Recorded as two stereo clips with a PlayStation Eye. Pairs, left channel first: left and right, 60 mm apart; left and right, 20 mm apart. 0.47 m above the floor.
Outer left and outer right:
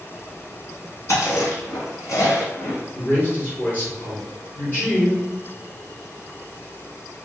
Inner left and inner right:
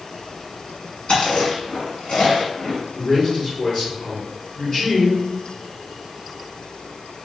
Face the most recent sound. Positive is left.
turn(degrees=35)  # may be behind; listen again after turning